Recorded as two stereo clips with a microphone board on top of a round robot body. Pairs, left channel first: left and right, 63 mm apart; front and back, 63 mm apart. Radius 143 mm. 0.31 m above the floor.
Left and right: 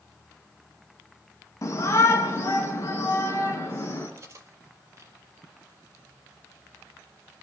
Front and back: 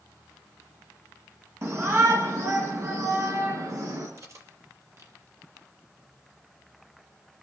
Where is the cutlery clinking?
140° right, 6.5 m.